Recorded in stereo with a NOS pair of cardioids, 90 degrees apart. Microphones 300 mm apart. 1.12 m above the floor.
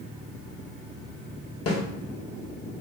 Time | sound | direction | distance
1.7 | a snare drum | 50° left | 1.0 m